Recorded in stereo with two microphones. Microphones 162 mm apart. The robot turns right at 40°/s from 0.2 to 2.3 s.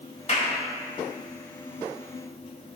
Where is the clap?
45° left (ahead or behind), 1.4 m; by 0.6 s 50° left (ahead or behind), 1.4 m.